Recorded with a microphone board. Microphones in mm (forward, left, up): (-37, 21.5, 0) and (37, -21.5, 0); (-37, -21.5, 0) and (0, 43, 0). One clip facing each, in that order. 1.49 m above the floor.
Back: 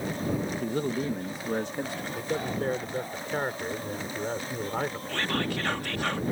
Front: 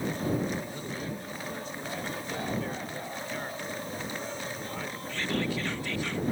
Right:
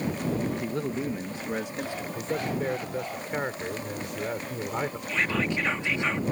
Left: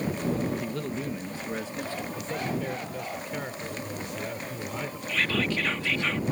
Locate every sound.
0.6 s a man speaking: 175° left; by 2.0 s 170° left
2.1 s a man speaking: 170° right
5.1 s whispering: 170° left